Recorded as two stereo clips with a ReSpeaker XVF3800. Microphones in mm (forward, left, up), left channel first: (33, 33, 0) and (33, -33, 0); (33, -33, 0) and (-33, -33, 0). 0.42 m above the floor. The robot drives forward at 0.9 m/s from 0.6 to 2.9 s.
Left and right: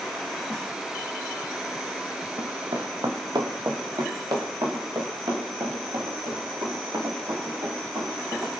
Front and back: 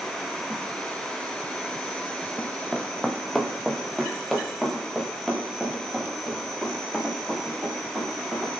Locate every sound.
2.4 s running footsteps: 65° right, 1.2 m; by 8.5 s 95° right, 9.5 m